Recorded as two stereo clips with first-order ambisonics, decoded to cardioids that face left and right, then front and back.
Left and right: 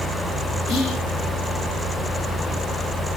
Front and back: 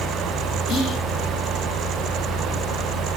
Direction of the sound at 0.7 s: 50° left.